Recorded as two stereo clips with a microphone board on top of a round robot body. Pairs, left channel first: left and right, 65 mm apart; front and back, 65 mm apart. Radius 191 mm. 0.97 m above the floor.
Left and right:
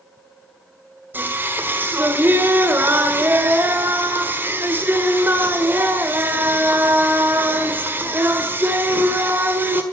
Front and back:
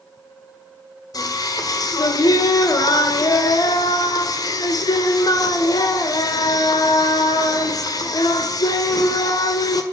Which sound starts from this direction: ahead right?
Singing, at 1.1 s.